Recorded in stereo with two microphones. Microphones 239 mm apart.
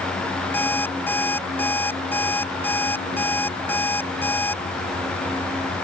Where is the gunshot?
No gunshot in this recording.